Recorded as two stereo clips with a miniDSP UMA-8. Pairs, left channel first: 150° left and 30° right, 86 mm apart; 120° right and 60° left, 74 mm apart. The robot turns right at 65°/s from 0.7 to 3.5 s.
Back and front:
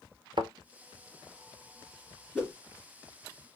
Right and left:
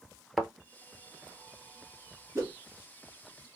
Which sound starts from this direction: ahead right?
A thud, at 0.4 s.